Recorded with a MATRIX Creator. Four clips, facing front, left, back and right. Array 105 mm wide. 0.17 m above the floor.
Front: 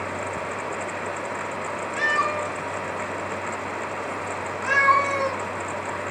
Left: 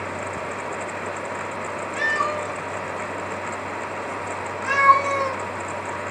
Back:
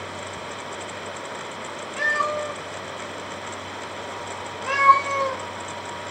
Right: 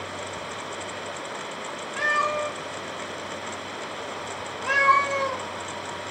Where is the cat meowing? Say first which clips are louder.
Even, even; 50° left, 1.5 m.